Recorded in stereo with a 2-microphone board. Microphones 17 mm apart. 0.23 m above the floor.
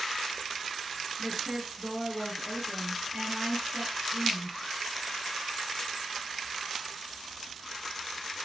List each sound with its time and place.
1.2 s a woman speaking: 60° right (ahead or behind), 5 m